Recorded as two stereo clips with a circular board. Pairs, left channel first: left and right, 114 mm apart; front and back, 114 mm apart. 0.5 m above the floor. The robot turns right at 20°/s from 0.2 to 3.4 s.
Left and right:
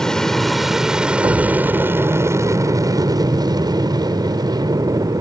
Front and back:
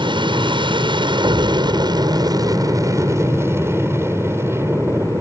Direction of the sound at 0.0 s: 175° left.